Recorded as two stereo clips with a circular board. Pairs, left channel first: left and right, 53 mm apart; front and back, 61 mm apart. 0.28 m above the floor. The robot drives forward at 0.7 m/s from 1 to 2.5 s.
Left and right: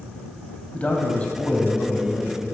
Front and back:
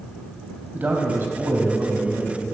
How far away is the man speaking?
About 1.4 m.